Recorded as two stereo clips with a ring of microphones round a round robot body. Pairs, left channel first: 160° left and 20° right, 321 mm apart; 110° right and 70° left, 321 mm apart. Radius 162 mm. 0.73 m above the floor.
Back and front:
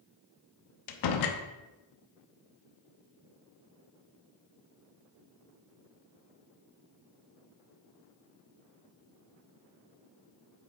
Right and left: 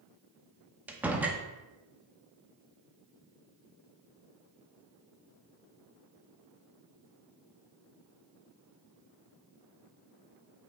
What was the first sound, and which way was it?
A door slam, 150° left.